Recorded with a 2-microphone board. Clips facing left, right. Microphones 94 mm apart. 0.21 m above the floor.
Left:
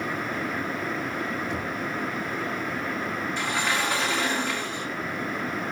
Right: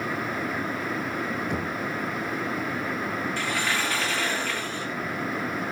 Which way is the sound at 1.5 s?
55° right (ahead or behind).